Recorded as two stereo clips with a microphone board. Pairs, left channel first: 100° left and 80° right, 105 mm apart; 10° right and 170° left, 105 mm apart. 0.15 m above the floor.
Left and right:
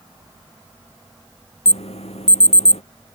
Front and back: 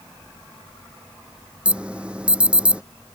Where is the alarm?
90° left.